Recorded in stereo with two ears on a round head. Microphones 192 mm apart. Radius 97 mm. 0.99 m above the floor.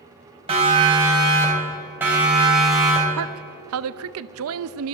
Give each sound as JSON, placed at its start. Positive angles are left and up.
{"t": 0.5, "sound": "a siren", "side_deg": -25, "distance_m": 4.5}
{"t": 3.2, "sound": "a woman speaking", "side_deg": -65, "distance_m": 0.6}